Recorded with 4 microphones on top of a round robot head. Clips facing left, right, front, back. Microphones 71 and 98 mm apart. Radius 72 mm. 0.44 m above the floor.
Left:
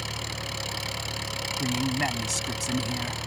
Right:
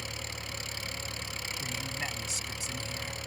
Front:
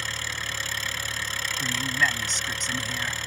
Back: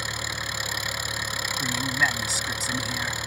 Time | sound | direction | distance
0.0 | an engine running | 105° left | ?
1.6 | a man speaking | 95° left | ?